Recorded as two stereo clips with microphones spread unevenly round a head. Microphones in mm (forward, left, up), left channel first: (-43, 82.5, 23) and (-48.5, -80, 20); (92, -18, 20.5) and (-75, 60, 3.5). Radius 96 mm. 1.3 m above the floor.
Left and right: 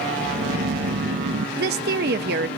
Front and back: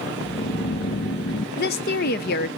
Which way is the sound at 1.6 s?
65° right.